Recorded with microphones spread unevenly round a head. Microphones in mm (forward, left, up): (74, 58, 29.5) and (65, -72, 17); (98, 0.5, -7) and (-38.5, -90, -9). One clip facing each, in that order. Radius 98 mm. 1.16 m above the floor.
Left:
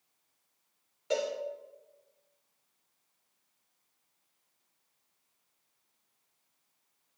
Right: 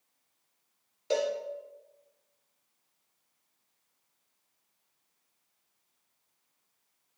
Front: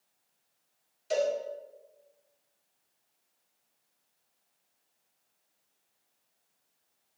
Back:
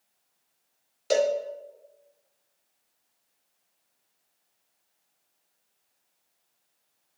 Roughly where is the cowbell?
Behind.